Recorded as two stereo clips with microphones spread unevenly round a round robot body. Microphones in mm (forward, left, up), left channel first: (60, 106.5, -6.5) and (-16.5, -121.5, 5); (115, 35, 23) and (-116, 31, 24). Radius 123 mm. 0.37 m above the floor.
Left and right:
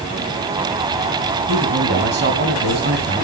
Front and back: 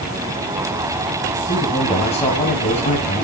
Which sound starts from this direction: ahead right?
A man speaking, at 1.5 s.